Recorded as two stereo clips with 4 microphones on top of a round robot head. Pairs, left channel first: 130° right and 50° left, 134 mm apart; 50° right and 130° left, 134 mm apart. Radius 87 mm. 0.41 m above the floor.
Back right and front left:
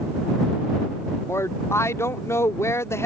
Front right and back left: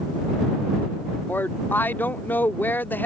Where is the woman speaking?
100° right.